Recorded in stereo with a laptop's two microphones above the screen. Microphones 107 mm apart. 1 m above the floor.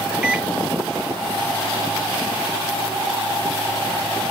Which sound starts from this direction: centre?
A microwave, at 0.2 s.